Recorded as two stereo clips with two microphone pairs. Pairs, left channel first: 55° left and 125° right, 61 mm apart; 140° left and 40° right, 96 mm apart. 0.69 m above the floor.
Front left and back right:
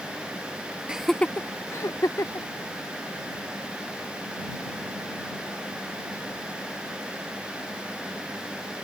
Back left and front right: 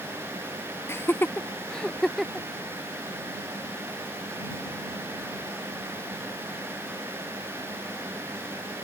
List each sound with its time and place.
0.9 s laughter: 175° left; by 2.5 s 45° left